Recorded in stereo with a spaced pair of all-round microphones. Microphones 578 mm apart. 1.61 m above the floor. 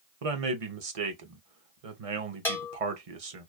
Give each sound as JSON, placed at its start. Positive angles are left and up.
{"t": 0.2, "sound": "a man speaking", "side_deg": -70, "distance_m": 0.8}
{"t": 2.5, "sound": "a bell", "side_deg": 5, "distance_m": 1.0}